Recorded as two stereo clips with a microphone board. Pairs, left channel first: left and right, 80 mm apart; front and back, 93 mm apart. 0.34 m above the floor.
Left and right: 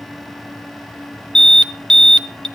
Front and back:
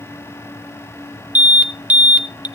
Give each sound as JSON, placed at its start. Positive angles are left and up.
{"t": 1.4, "sound": "an alarm", "azimuth_deg": 150, "distance_m": 1.0}